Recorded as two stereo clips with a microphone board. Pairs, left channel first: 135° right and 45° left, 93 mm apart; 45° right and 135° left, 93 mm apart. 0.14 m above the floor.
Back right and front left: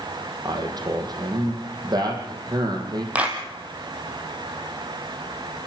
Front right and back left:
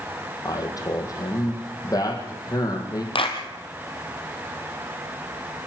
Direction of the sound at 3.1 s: 30° right.